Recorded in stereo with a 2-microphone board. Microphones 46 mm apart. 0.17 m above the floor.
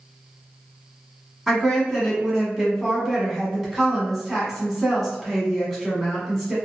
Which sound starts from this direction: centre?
A woman speaking, at 1.5 s.